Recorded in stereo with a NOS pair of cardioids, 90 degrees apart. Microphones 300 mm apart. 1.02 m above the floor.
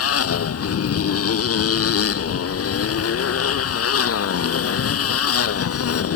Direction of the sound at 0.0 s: 50° left.